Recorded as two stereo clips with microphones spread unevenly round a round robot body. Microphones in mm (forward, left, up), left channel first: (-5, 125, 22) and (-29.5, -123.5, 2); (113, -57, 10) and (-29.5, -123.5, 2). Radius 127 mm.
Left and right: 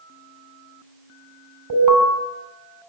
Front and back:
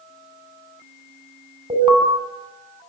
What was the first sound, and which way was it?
An alarm, 95° right.